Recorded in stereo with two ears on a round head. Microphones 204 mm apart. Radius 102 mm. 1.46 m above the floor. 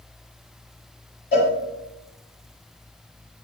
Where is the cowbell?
45° left (ahead or behind), 1.8 m.